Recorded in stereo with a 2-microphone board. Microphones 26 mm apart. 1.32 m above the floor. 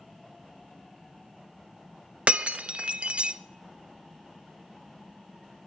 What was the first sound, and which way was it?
Breaking glass, 55° right (ahead or behind).